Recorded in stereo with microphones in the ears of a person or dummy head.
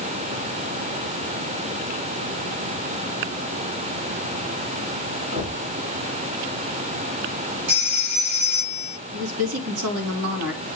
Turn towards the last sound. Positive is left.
turn(degrees=-80)